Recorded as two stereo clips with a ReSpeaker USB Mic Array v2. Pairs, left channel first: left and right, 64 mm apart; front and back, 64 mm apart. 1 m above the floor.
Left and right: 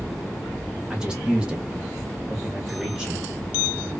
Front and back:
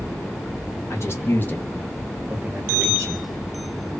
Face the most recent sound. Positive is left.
turn(degrees=-175)